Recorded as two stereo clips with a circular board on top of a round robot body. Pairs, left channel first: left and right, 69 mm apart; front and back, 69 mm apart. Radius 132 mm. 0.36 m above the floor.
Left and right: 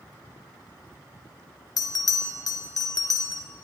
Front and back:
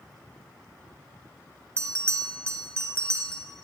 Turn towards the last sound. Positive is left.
turn(degrees=125)